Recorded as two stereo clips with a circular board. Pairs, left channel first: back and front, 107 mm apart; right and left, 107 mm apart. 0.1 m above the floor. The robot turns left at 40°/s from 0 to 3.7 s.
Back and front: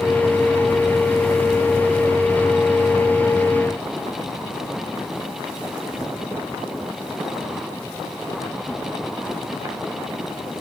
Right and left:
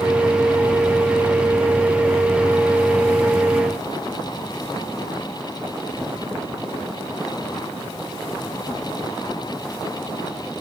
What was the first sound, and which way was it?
Only background noise.